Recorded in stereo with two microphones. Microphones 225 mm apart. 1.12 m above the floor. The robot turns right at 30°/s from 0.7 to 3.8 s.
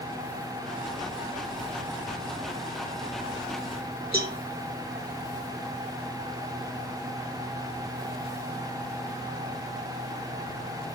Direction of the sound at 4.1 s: 45° right (ahead or behind).